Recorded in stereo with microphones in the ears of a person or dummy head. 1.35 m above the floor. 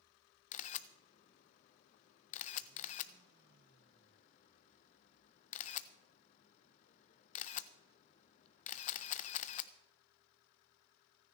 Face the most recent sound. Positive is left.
turn(degrees=40)  # may be behind; listen again after turning